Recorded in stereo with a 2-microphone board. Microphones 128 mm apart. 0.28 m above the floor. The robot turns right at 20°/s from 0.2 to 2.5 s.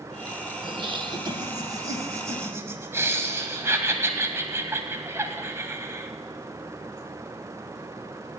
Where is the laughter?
65° right, 1.3 m; by 6.1 s 30° right, 1.3 m.